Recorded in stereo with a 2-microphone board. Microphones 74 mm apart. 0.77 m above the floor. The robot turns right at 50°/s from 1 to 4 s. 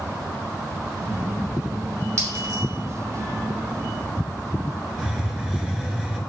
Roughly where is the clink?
Right.